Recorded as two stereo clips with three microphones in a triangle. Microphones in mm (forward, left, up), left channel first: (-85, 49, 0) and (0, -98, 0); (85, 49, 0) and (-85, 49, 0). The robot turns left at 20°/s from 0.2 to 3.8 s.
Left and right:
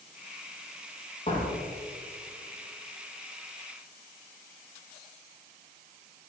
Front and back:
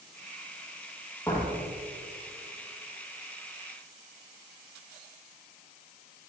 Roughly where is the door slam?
Left.